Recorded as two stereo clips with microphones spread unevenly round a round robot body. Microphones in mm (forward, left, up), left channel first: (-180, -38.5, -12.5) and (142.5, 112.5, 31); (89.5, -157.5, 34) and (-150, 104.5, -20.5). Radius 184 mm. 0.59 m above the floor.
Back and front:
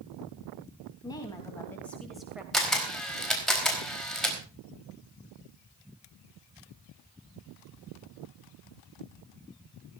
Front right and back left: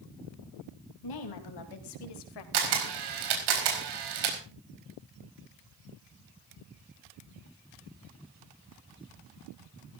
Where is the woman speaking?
75° right, 4 m; by 2.4 s 65° right, 2.5 m.